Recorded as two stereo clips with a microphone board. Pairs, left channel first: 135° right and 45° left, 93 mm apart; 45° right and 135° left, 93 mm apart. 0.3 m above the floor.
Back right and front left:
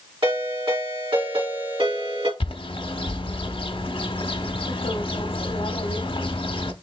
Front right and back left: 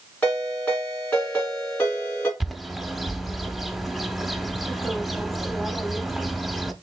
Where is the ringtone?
25° left, 3 m.